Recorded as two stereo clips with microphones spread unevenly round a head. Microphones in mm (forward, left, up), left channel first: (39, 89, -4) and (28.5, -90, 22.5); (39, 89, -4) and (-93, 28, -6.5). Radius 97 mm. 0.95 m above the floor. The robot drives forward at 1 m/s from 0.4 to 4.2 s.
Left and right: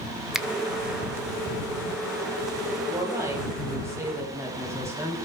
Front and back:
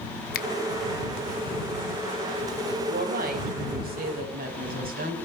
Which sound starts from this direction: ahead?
A finger snap, at 0.3 s.